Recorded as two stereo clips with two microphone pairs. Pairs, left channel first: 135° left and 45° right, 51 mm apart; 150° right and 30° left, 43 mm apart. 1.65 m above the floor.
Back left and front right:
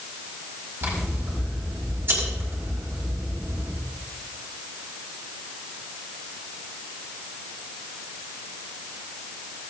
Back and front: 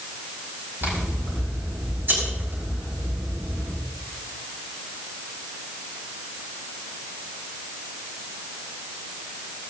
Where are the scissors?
Straight ahead, 5.5 m.